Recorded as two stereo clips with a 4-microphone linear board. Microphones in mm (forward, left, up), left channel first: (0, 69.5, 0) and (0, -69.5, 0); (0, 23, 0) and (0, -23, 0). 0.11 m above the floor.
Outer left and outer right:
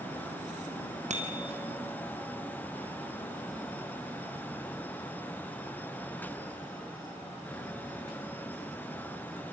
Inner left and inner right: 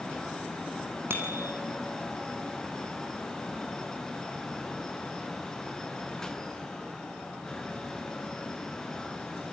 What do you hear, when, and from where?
1.1 s a bicycle bell: 55° right (ahead or behind), 3.5 m